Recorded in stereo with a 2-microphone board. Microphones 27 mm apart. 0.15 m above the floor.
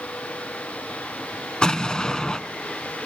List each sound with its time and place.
1.6 s an explosion: 30° left (ahead or behind), 1.1 m